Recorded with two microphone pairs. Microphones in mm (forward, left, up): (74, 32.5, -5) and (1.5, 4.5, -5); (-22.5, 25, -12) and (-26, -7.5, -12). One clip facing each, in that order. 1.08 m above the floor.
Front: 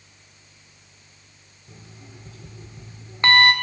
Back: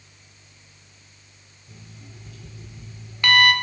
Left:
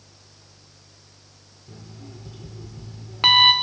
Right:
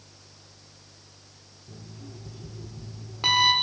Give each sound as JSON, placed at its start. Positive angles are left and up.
{"t": 1.7, "sound": "an alarm clock", "azimuth_deg": 70, "distance_m": 1.1}